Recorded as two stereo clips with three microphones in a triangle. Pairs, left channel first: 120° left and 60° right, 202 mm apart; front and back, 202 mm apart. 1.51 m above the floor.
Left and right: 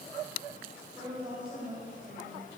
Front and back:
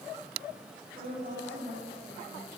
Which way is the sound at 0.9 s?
130° right.